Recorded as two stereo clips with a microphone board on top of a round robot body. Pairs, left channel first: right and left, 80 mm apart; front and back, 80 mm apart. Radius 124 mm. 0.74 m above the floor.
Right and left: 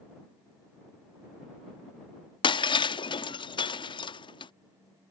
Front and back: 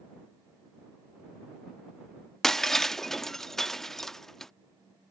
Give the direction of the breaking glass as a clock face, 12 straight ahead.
3 o'clock.